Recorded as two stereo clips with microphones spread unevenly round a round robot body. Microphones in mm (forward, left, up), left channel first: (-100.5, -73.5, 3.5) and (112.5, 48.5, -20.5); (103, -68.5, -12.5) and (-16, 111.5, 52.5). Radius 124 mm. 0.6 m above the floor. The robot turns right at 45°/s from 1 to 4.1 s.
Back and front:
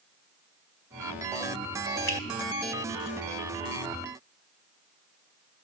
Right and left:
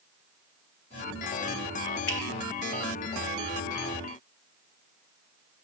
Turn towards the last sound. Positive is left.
turn(degrees=20)